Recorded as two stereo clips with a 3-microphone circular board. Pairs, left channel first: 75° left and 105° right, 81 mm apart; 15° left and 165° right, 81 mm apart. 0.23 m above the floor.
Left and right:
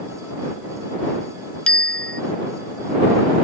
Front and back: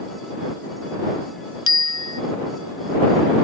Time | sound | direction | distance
1.7 | a bicycle bell | straight ahead | ?